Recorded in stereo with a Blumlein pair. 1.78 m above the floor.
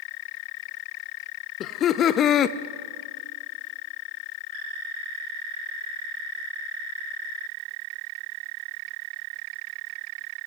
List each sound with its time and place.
1.6 s laughter: 30° left, 0.7 m